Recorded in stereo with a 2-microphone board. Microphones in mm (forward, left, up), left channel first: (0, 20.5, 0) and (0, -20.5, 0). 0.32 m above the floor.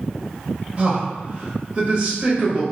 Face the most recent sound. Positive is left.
turn(degrees=-30)  # may be behind; listen again after turning